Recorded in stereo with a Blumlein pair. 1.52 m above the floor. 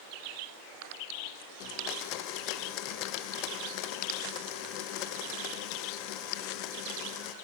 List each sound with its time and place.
1.6 s a blender: 40° left, 0.6 m